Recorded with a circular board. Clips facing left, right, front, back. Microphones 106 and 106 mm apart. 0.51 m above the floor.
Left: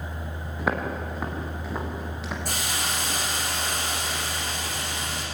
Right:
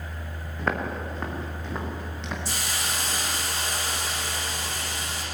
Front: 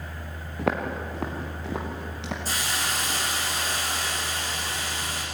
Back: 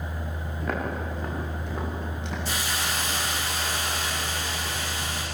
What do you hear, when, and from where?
0.6 s footsteps: 5° left, 5 m
2.5 s a hiss: 55° left, 9 m